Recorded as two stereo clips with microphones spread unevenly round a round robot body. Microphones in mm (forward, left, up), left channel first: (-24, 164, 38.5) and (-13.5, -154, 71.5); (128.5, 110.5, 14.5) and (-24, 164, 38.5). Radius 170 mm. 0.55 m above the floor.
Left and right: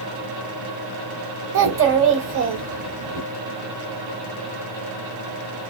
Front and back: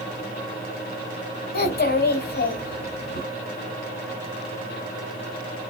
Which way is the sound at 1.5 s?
35° right.